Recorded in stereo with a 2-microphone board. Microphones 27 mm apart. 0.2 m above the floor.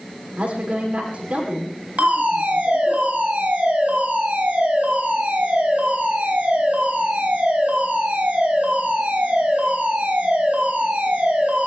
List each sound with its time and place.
0.4 s a woman speaking: 55° right (ahead or behind), 9 m
2.0 s a fire alarm: 75° right (ahead or behind), 8 m